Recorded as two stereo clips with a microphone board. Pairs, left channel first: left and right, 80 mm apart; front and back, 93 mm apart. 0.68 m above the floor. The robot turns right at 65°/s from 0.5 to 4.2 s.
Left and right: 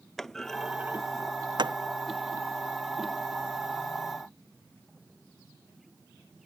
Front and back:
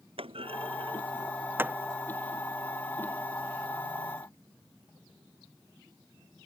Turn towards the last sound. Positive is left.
turn(degrees=55)